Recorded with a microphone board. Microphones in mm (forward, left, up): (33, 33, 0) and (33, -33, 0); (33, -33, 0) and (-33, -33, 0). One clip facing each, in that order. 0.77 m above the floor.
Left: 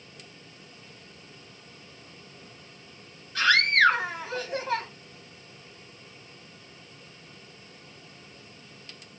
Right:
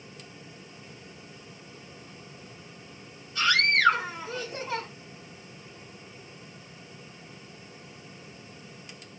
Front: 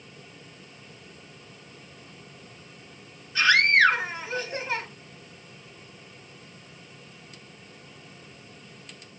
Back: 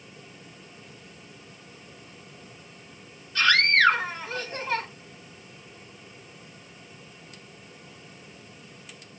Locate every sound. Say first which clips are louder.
3.4 s a scream: left 3 dB, front 1 dB; 75° left, 4 m